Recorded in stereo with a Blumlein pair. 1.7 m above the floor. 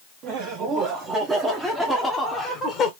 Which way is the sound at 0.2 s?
35° right.